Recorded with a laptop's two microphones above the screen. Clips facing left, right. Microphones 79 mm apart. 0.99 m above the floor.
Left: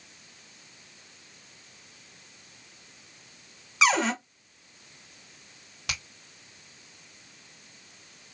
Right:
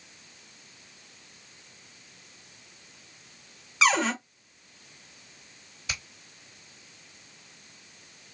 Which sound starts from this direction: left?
A finger snap, at 5.9 s.